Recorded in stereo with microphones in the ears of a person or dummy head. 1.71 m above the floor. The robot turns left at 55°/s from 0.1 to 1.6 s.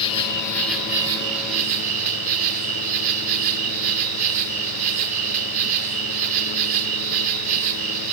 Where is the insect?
35° left, 3.5 m; by 8.1 s 50° right, 3.5 m.